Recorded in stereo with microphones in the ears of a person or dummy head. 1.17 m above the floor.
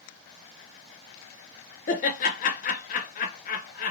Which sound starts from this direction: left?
Laughter, at 1.9 s.